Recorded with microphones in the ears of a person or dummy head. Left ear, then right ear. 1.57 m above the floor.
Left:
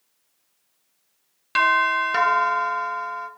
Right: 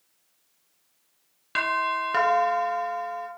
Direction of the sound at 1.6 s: 10° left (ahead or behind).